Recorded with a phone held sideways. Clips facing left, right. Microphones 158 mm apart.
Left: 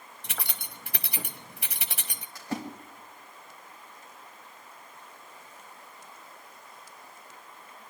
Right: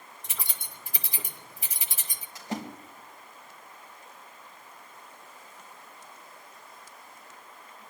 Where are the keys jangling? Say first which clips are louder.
Left 4 dB; 70° left (ahead or behind), 1.2 m.